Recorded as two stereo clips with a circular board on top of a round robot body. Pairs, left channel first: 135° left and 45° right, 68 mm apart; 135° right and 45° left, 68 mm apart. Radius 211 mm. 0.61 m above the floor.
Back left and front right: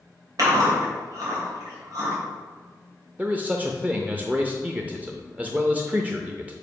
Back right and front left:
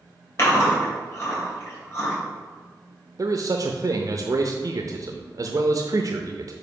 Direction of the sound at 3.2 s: 20° left.